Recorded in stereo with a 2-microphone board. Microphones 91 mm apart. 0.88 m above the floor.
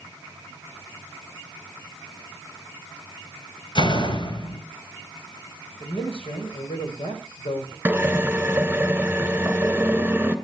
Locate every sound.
3.8 s a door slam: 55° left (ahead or behind), 3 m
5.8 s a man speaking: 80° left, 4.5 m
7.8 s a drill: 15° right (ahead or behind), 2.5 m